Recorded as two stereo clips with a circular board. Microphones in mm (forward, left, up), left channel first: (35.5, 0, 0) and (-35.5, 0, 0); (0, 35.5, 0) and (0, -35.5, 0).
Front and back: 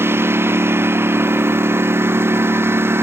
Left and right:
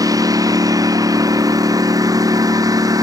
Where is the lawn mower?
125° right.